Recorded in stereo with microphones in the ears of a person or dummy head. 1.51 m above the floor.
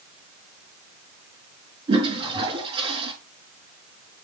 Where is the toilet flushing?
30° right (ahead or behind), 5 m.